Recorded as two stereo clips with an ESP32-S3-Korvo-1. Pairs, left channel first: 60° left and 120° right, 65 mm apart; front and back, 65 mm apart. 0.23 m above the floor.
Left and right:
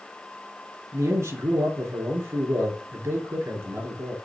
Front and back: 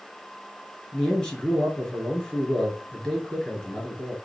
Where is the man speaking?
80° right, 4 m.